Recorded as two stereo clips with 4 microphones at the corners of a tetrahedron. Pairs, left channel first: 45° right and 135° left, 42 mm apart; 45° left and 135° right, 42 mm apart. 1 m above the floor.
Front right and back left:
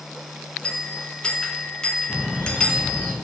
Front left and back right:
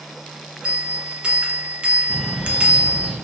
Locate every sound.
0.6 s a bell: 95° right, 0.5 m
2.1 s a bird: 40° right, 1.7 m